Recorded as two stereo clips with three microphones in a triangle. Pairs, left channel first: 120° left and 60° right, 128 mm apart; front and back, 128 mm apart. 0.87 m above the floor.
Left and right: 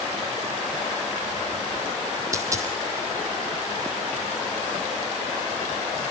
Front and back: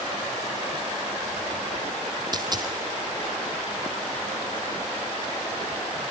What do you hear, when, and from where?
2.3 s a dropped coin: 125° right, 2.5 m